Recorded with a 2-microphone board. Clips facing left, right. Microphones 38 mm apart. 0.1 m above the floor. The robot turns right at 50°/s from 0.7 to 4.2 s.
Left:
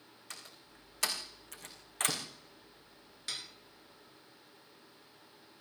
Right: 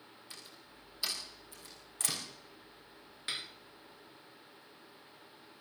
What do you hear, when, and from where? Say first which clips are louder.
0.3 s a door slam: left 3 dB; 65° left (ahead or behind), 5 m; by 2.2 s 35° left (ahead or behind), 5 m
3.3 s dishes clattering: right 3 dB; 25° right (ahead or behind), 0.9 m